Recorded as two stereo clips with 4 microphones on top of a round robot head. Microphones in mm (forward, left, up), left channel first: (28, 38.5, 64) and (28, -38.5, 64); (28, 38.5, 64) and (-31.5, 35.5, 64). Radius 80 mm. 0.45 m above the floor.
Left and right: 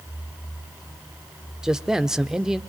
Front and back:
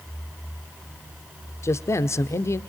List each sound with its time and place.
1.6 s a man speaking: 10° right, 1.1 m